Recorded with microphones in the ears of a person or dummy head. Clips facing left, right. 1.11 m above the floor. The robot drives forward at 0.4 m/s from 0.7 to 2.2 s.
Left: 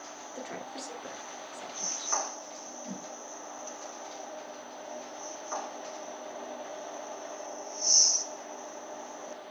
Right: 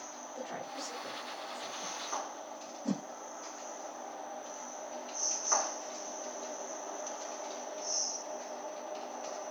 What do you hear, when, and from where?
0.3 s a woman speaking: 35° left (ahead or behind), 2.5 m; by 2.1 s 30° left (ahead or behind), 3 m
2.9 s a whoosh: 85° right, 0.6 m